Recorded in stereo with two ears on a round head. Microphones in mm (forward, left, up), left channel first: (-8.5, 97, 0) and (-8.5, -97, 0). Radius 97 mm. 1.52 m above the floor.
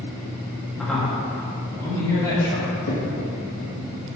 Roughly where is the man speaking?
Centre.